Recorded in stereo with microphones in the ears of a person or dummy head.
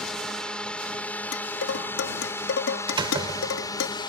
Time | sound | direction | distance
0.0 | a drone | centre (ahead or behind) | ?
1.3 | dishes clattering | 65° left (ahead or behind) | ?
2.9 | a door slam | 30° right (ahead or behind) | ?